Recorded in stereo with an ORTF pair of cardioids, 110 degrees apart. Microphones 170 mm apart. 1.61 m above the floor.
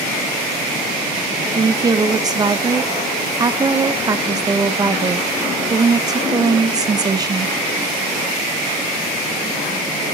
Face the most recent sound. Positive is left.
turn(degrees=-25)